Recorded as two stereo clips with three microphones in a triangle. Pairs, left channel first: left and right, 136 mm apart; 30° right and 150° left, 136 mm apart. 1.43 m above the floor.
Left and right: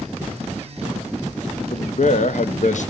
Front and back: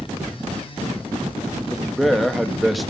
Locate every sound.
1.7 s a man speaking: 60° left, 0.7 m